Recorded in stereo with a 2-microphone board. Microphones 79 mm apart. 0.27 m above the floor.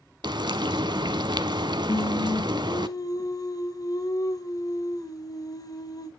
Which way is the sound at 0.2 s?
75° right (ahead or behind).